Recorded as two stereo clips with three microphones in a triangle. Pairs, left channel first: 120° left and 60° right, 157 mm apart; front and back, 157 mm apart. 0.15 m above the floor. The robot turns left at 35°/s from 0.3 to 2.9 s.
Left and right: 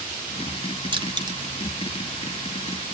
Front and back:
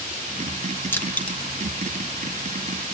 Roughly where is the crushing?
Ahead right.